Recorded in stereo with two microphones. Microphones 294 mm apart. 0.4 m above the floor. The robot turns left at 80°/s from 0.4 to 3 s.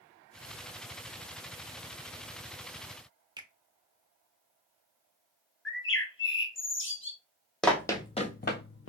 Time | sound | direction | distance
3.4 | a finger snap | 15° right (ahead or behind) | 0.6 m
5.7 | a bird | 45° left (ahead or behind) | 0.6 m
7.6 | running footsteps | centre (ahead or behind) | 0.7 m